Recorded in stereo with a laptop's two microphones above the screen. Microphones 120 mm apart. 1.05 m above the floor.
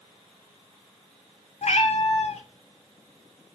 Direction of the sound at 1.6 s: 60° left (ahead or behind).